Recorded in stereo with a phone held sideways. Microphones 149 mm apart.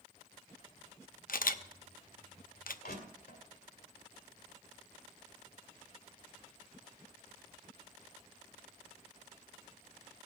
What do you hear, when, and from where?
1.3 s a camera shutter: 70° left (ahead or behind), 0.6 m
2.8 s crushing: 85° left, 2 m